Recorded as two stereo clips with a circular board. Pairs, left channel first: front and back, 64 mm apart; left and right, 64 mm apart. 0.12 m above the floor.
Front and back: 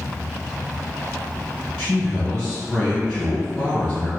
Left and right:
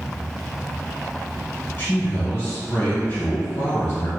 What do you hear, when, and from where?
1.8 s a man speaking: 75° left, 1.6 m